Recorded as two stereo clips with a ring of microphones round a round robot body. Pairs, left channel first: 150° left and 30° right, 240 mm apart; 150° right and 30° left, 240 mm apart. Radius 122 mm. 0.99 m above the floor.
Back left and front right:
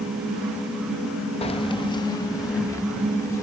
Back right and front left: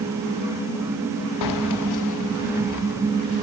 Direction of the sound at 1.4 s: 140° right.